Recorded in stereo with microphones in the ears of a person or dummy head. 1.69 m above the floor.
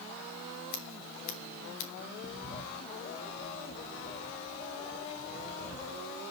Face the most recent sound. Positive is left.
turn(degrees=35)  # may be behind; listen again after turning